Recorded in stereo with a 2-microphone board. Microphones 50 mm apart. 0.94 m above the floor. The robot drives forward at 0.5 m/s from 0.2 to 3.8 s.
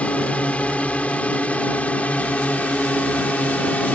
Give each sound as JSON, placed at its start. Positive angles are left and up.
{"t": 0.0, "sound": "a drone", "side_deg": 25}